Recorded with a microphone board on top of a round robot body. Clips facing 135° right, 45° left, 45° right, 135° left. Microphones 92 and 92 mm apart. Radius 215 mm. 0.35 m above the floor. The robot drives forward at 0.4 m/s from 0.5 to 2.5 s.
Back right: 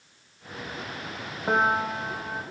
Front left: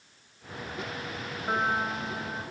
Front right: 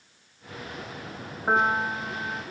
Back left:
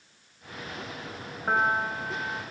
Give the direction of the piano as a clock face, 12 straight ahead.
4 o'clock.